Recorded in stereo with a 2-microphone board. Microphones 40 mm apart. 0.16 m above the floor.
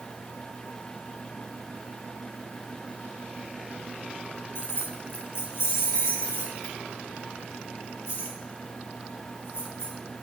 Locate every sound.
4.5 s keys jangling: 65° left (ahead or behind), 1.6 m; by 9.9 s 80° left, 5.5 m